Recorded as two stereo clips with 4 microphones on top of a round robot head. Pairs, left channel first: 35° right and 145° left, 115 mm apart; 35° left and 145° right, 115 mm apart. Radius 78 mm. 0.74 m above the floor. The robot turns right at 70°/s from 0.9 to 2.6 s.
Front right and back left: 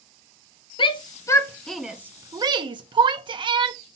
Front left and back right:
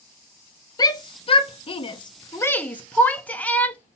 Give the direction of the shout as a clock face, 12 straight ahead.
12 o'clock.